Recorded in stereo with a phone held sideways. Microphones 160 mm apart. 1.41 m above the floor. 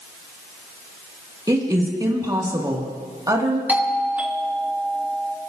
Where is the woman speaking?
20° right (ahead or behind), 2 m.